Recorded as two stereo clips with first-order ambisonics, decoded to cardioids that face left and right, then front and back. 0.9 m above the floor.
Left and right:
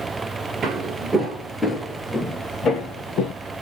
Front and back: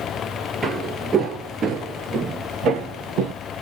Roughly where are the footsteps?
Right.